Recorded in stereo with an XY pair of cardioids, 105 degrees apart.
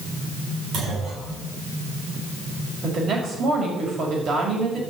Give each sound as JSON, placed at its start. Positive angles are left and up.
{"t": 0.7, "sound": "a clunk", "azimuth_deg": -70, "distance_m": 8.0}
{"t": 2.8, "sound": "a woman speaking", "azimuth_deg": -55, "distance_m": 6.0}